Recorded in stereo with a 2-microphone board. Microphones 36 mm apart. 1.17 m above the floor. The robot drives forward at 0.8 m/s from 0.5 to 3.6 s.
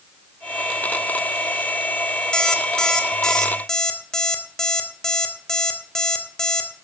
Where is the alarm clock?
20° left (ahead or behind), 1.9 m; by 6.7 s 15° left (ahead or behind), 3 m.